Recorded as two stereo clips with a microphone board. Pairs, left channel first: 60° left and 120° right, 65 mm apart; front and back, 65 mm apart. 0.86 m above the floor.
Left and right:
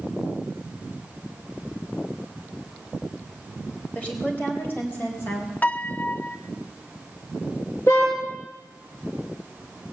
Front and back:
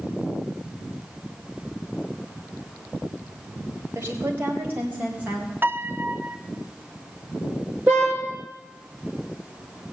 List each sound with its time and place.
4.0 s a woman speaking: 130° left, 4 m; by 5.5 s 110° left, 4.5 m
5.6 s a piano: 125° left, 0.6 m
7.9 s a car horn: 110° left, 6.5 m